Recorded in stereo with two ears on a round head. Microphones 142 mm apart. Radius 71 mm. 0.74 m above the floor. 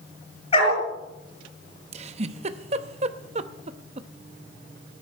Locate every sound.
0.5 s a dog barking: 35° left (ahead or behind), 4.5 m
1.9 s a giggle: 40° right (ahead or behind), 0.7 m